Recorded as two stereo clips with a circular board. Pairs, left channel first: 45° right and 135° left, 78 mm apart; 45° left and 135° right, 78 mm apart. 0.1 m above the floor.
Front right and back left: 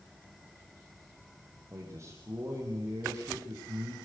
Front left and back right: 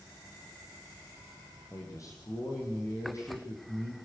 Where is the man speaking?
85° left, 4.5 m.